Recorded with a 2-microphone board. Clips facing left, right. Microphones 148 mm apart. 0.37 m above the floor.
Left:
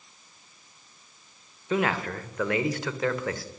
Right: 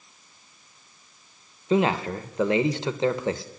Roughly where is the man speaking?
Right.